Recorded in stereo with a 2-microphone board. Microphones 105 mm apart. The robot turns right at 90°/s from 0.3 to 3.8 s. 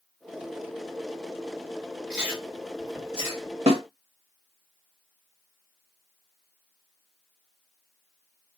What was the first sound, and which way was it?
Chewing, centre (ahead or behind).